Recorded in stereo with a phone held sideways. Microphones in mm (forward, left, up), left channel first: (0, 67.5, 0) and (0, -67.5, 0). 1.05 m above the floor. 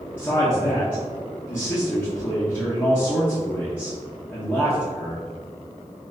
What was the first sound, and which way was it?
A man speaking, 10° left (ahead or behind).